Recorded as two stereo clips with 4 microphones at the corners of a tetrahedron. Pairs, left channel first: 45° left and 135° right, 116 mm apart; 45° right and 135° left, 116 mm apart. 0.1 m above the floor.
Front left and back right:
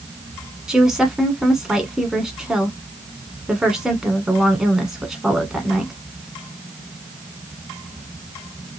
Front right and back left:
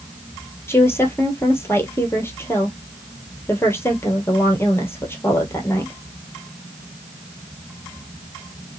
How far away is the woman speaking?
About 1.2 m.